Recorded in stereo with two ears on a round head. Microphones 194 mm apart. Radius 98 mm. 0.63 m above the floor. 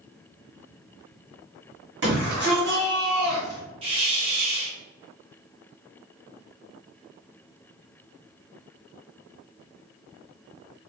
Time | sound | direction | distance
2.0 | a shout | 55° right (ahead or behind) | 1.8 m
3.8 | a hiss | 25° right (ahead or behind) | 1.2 m